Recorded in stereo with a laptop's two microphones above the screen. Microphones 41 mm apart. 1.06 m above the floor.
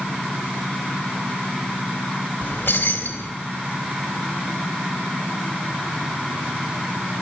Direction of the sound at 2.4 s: 80° left.